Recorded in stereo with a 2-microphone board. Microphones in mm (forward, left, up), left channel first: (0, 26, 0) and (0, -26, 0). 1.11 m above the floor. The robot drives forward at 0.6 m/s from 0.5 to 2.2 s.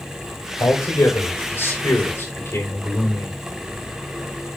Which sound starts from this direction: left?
A man speaking, at 0.6 s.